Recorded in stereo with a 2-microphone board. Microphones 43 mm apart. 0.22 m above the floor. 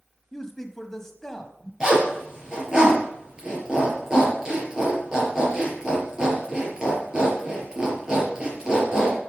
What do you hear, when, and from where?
0.3 s a man speaking: 10° left (ahead or behind), 1.1 m
1.8 s a zipper: 20° right (ahead or behind), 4 m